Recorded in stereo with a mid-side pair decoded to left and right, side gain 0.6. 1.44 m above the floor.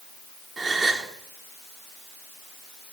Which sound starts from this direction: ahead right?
A gasp, at 0.6 s.